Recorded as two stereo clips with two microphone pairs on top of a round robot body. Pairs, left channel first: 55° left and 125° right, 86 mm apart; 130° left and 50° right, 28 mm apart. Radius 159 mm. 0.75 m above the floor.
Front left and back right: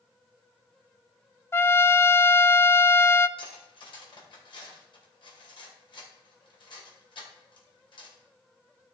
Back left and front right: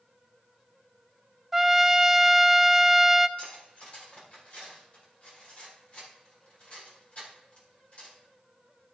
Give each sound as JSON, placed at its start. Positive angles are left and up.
{"t": 1.5, "sound": "a trumpet", "azimuth_deg": 20, "distance_m": 0.5}
{"t": 3.4, "sound": "cutlery clinking", "azimuth_deg": 85, "distance_m": 2.5}